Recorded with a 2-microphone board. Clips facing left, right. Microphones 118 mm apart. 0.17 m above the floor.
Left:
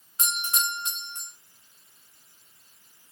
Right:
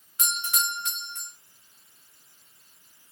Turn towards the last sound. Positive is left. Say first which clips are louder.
# even
turn(degrees=30)  # may be behind; listen again after turning